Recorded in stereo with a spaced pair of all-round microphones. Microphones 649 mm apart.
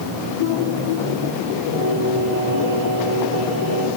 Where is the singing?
20° right (ahead or behind), 8.5 m.